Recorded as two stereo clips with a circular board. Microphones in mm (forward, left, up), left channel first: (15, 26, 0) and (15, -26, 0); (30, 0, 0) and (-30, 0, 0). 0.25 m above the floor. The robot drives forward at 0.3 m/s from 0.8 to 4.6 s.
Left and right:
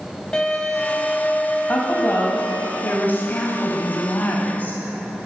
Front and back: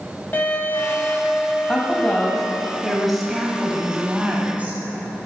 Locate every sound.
0.3 s a violin: 25° left, 0.8 m; by 2.7 s 120° left, 0.7 m
1.7 s a woman speaking: 65° left, 1.2 m; by 5.2 s 125° left, 1.3 m